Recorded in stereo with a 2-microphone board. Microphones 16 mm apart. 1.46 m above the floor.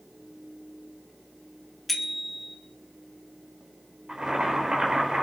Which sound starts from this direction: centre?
A bicycle bell, at 1.9 s.